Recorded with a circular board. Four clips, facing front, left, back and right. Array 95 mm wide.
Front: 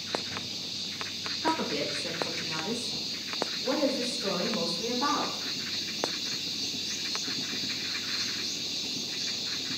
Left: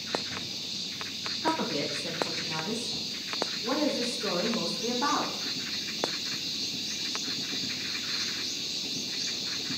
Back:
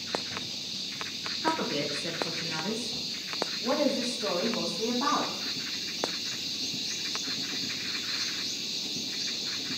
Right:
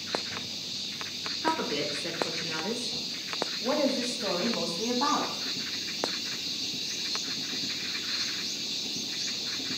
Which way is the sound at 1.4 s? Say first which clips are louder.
Even, even; 120° right.